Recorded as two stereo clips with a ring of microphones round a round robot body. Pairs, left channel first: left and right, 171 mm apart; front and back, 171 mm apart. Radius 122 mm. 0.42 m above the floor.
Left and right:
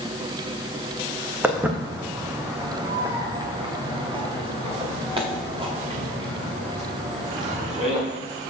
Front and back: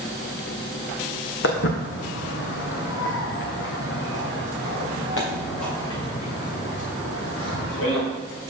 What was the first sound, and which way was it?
Footsteps, 10° right.